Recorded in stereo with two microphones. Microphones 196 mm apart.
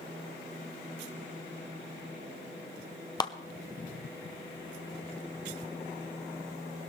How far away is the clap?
About 0.9 m.